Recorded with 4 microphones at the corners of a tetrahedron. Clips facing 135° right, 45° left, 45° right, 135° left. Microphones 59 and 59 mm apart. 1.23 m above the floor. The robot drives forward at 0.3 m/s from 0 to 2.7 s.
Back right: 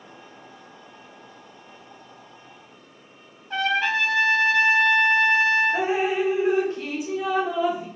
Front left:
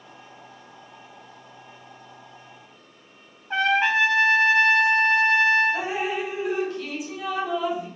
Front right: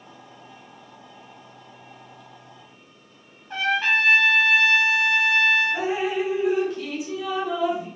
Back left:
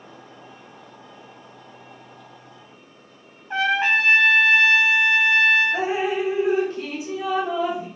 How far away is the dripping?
About 1.2 m.